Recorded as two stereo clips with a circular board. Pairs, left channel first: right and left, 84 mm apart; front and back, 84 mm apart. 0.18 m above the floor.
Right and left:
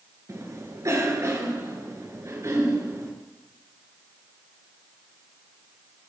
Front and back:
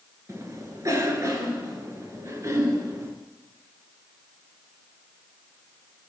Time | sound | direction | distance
0.3 | a cough | 135° left | 2.5 m